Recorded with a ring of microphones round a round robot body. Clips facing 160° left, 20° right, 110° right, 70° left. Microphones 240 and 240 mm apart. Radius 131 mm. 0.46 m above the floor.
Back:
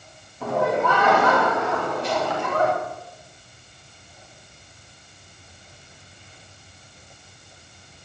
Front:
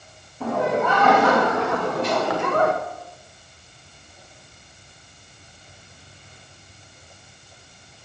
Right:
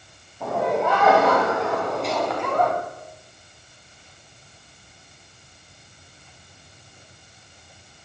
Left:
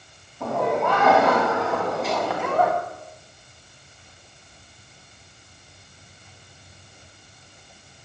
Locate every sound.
0.4 s laughter: 25° right, 3.5 m; by 2.7 s 15° right, 1.5 m